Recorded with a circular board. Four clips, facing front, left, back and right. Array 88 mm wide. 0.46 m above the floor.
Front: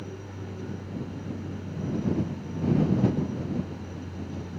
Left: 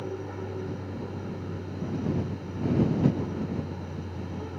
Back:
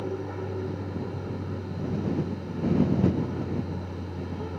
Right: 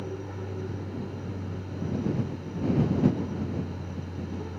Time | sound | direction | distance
0.0 | an aircraft | 160° left | ?